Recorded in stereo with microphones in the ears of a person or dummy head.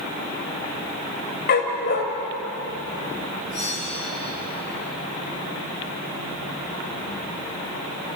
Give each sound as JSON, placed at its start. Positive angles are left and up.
{"t": 1.5, "sound": "a dog barking", "side_deg": 45, "distance_m": 2.0}
{"t": 3.5, "sound": "a bell", "side_deg": 70, "distance_m": 9.5}